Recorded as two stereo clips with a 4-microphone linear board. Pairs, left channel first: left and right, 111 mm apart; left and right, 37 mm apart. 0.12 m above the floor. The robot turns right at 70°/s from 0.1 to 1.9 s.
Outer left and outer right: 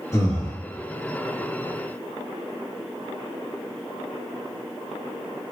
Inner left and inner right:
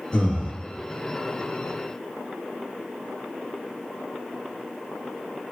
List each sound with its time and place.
0.1 s breathing: 30° left (ahead or behind), 1.3 m; by 0.5 s 40° left (ahead or behind), 1.3 m